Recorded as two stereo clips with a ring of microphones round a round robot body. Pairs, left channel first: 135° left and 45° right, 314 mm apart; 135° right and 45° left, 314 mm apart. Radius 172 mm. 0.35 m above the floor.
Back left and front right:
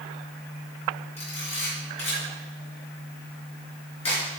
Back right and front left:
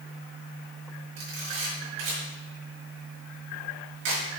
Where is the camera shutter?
65° left, 4.5 m.